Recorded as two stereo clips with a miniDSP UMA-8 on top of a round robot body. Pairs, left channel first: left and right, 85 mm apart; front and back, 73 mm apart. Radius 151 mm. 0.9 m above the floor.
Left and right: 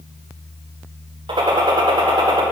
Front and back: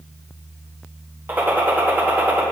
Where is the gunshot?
115° right, 1.7 m.